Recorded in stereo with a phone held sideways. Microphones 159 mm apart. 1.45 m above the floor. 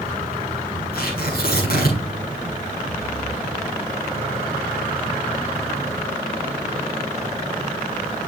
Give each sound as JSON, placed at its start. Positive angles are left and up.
{"t": 0.9, "sound": "tearing paper", "side_deg": 80, "distance_m": 6.0}